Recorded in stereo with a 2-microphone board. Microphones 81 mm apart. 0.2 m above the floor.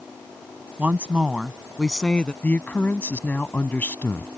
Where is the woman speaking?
20° right (ahead or behind); by 2.3 s 15° left (ahead or behind).